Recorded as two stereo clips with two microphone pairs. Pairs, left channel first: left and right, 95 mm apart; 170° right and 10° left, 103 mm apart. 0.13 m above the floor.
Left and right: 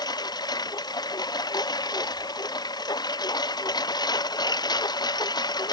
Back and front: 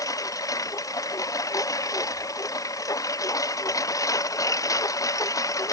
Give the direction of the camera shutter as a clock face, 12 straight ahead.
I don't hear a camera shutter.